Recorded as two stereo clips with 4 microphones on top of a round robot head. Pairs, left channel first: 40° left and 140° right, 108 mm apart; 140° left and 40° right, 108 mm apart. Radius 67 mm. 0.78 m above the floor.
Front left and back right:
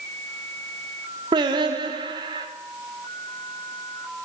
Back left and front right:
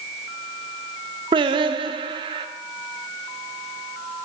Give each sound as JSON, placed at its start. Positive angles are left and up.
{"t": 1.3, "sound": "singing", "azimuth_deg": -85, "distance_m": 0.6}